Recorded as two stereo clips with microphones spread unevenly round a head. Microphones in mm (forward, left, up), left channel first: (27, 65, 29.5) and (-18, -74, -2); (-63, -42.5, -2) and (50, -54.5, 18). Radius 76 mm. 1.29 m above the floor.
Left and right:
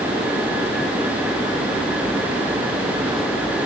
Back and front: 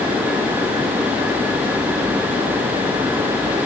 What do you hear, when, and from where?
Only background noise.